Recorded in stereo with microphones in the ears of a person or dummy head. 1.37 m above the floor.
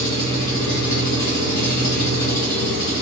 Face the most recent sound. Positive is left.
turn(degrees=50)  # may be behind; listen again after turning